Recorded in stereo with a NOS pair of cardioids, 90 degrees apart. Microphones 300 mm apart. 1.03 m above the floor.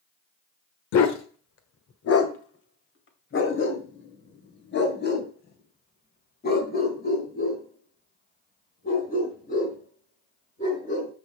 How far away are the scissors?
I don't hear scissors.